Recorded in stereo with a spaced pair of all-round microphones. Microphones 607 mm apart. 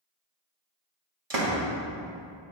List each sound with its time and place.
1.3 s a door slam: 80° right, 1.4 m